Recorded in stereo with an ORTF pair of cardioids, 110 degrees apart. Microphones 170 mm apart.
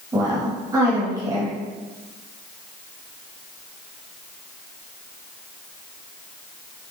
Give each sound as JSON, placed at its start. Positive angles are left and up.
{"t": 0.1, "sound": "a woman speaking", "azimuth_deg": -20, "distance_m": 2.0}